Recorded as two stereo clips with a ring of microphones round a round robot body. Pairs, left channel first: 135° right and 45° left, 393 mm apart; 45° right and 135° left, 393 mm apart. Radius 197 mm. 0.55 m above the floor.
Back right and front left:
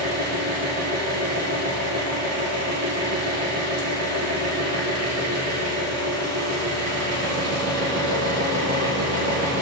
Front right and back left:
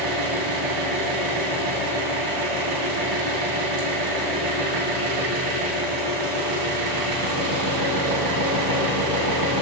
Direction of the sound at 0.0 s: 95° left.